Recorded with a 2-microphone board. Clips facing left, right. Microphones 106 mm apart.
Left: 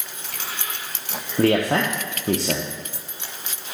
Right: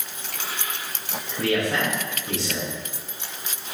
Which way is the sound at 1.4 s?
50° left (ahead or behind).